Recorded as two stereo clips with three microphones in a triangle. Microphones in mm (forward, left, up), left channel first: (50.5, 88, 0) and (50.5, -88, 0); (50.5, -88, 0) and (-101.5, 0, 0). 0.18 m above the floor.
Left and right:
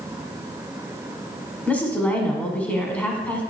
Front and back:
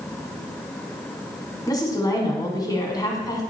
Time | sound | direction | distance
1.7 | a woman speaking | 15° left | 1.1 m